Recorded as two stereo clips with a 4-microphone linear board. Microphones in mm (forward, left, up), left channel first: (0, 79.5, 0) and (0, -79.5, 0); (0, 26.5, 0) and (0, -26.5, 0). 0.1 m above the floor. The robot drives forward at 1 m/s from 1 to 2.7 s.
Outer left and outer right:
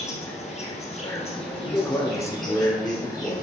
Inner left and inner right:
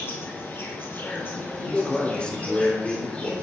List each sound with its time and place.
0.0 s an insect: 45° left (ahead or behind), 2.0 m; by 3.4 s 25° left (ahead or behind), 3 m
1.6 s a man speaking: 25° left (ahead or behind), 1.4 m; by 3.4 s 15° left (ahead or behind), 2.0 m